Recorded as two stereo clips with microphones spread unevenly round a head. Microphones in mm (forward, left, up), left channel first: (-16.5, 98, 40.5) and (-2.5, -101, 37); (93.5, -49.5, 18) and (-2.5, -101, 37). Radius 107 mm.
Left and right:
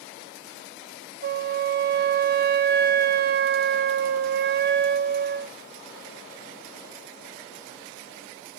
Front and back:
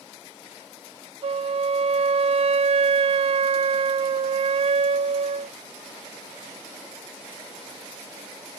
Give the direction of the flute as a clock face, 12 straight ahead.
4 o'clock.